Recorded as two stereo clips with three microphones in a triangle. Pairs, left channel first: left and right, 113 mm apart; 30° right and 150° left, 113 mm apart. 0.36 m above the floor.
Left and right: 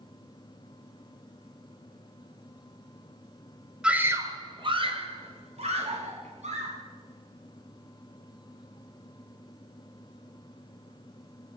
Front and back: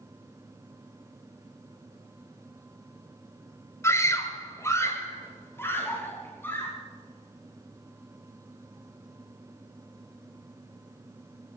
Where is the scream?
20° right, 1.5 m; by 6.7 s 105° right, 4.5 m.